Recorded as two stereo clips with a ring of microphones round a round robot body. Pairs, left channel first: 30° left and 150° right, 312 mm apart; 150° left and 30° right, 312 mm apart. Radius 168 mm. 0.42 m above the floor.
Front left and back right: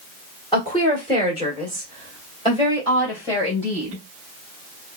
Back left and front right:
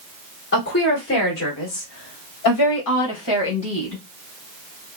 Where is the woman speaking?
105° left, 2 m.